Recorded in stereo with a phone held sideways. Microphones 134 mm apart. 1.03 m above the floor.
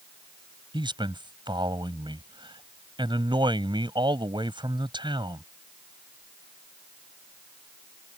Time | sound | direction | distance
0.7 | a man speaking | 35° right (ahead or behind) | ?